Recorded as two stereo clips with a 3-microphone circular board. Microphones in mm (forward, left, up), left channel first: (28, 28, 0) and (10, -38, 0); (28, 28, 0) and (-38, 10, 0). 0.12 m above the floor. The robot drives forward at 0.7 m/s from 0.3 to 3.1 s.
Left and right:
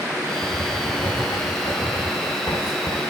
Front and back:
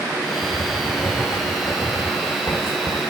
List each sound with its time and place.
0.4 s writing: 55° left, 7.5 m; by 3.0 s 70° left, 6.5 m